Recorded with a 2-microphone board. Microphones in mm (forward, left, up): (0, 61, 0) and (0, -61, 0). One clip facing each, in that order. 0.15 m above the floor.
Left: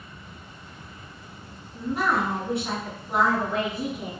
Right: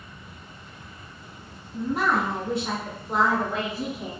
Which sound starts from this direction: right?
A woman speaking, at 1.7 s.